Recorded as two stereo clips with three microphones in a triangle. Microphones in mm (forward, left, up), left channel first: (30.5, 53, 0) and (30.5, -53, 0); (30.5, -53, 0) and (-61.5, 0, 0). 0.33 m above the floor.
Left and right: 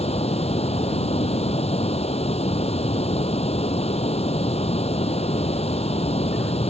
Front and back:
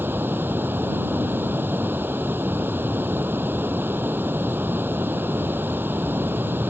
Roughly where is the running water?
Left.